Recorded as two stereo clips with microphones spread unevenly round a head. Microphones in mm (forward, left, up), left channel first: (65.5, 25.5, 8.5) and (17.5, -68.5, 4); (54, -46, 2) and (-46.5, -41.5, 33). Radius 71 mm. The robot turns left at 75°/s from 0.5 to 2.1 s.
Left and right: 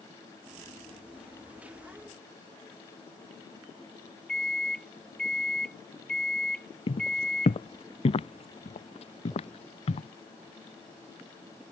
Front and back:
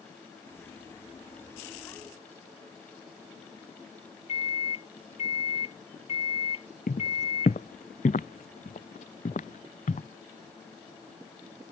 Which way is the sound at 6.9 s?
30° left.